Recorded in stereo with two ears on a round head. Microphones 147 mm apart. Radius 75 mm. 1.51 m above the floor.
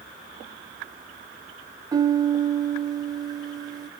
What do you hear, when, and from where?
1.9 s a piano: 25° right (ahead or behind), 0.6 m